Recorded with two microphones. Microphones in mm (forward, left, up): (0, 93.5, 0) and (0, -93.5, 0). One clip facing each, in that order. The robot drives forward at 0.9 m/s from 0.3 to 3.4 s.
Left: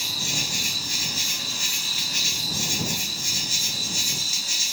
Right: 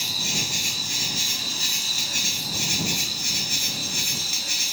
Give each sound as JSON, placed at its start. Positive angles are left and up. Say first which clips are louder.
{"t": 0.0, "sound": "an insect", "louder": "right 1 dB", "side_deg": -20, "distance_m": 2.5}